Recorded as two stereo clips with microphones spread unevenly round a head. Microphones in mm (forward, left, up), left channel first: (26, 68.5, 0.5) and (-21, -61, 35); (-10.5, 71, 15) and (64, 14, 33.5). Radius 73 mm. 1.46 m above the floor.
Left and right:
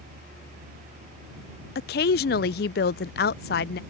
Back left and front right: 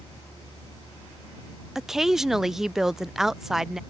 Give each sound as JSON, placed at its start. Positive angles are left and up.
{"t": 0.0, "sound": "a fan", "azimuth_deg": -150}
{"t": 1.8, "sound": "a woman speaking", "azimuth_deg": 45}